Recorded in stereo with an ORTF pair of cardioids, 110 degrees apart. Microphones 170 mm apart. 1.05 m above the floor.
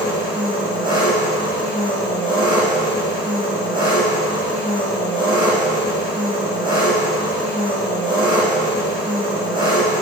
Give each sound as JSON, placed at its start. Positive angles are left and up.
{"t": 0.0, "sound": "an engine running", "azimuth_deg": -25, "distance_m": 4.0}